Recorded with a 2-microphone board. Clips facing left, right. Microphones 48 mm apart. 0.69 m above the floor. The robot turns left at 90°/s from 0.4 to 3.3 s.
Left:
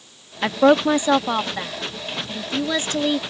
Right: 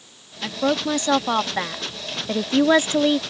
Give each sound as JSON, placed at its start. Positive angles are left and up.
{"t": 0.4, "sound": "a woman speaking", "side_deg": 40}